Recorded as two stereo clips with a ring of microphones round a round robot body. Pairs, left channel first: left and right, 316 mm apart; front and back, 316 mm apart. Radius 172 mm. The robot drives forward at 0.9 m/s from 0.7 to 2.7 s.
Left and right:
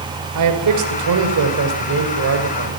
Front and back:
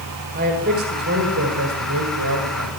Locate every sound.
0.3 s a man speaking: 115° right, 3.5 m; by 2.7 s 135° right, 5 m